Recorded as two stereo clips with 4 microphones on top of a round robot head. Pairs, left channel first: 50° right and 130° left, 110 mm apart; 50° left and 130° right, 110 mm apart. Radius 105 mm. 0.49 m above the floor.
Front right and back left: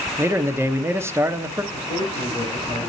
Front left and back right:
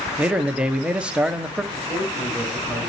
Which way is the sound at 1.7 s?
25° right.